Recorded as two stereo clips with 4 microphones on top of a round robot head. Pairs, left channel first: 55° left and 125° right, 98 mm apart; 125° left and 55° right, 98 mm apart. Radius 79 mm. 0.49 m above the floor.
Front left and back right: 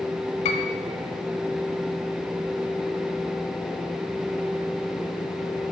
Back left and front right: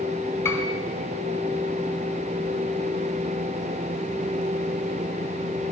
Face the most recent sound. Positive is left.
turn(degrees=60)